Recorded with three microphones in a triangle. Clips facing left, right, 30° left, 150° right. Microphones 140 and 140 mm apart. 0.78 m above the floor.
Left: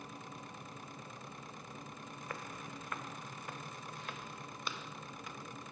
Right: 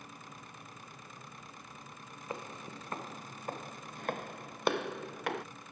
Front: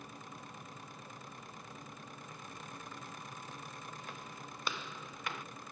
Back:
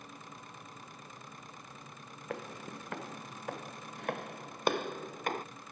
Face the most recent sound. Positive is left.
turn(degrees=-105)